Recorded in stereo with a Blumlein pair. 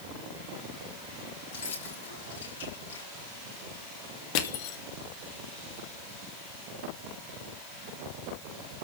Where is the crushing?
45° left, 2.0 m.